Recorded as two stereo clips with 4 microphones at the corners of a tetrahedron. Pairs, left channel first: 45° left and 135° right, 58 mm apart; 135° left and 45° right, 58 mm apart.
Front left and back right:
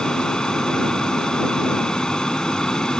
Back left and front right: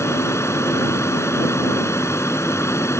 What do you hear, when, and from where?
0.0 s an aircraft: 120° left